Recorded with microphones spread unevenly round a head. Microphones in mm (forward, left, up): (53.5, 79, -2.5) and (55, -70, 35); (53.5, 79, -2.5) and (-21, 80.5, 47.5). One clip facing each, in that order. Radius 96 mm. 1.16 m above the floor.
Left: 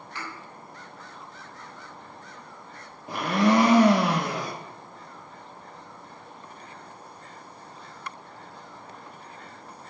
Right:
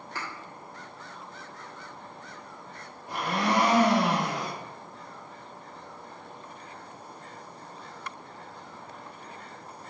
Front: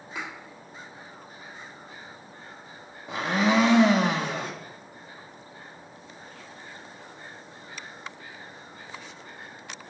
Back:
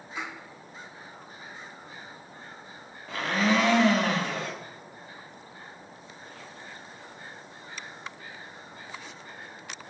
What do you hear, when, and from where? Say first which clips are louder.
0.1 s a thud: even, even; 55° right, 1.2 m
3.1 s a blender: left 6 dB, front 2 dB; 80° left, 0.5 m